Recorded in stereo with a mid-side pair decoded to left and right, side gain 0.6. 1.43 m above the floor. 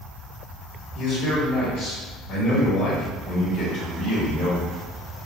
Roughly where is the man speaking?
Ahead left.